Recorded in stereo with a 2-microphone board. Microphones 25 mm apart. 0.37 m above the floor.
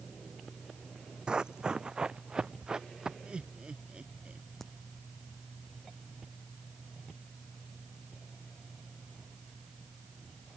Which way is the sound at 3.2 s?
40° right (ahead or behind).